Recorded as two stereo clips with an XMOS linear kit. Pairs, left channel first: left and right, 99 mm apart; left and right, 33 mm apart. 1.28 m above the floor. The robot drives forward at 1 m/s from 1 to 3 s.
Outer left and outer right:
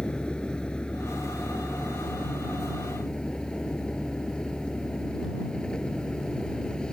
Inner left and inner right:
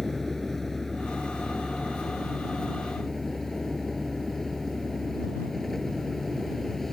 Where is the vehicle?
10° left (ahead or behind); by 6.9 s 5° left (ahead or behind).